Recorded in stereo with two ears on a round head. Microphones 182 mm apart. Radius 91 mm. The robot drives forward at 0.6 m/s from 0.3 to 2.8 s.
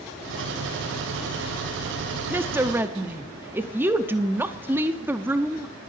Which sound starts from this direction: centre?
A woman speaking, at 2.3 s.